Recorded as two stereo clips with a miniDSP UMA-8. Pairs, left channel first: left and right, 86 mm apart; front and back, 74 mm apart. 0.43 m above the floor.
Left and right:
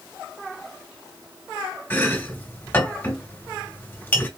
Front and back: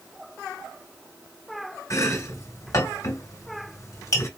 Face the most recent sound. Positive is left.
turn(degrees=25)